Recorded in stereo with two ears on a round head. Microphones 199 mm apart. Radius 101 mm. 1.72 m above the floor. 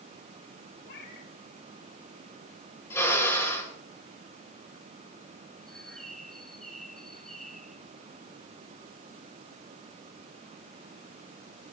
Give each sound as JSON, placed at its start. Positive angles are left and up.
{"t": 0.8, "sound": "a cat meowing", "side_deg": 50, "distance_m": 2.5}
{"t": 2.9, "sound": "a drill", "side_deg": 10, "distance_m": 8.5}
{"t": 5.7, "sound": "a bird", "side_deg": 0, "distance_m": 1.4}